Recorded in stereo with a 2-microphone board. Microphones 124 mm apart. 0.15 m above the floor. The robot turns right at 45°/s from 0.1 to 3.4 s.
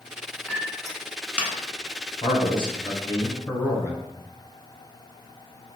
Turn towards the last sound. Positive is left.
turn(degrees=150)